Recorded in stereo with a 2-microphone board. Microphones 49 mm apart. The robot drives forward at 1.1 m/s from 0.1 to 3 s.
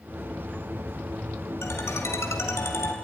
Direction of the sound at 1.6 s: 70° left (ahead or behind).